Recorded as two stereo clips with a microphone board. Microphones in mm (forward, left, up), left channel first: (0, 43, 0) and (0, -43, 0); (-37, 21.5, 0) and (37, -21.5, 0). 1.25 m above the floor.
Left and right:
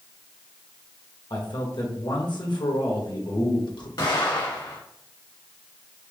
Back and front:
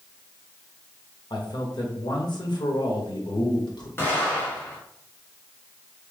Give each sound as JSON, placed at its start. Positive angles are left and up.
{"t": 1.3, "sound": "a man speaking", "azimuth_deg": 120, "distance_m": 1.4}
{"t": 4.0, "sound": "an explosion", "azimuth_deg": 95, "distance_m": 1.7}